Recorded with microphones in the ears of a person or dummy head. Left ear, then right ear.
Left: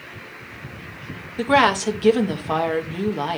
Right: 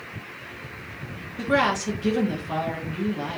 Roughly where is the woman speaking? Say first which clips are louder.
Left 5 dB; left.